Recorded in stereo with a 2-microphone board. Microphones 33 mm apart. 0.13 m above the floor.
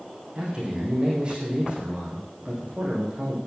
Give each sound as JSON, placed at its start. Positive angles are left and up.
{"t": 0.3, "sound": "a man speaking", "side_deg": -35, "distance_m": 5.0}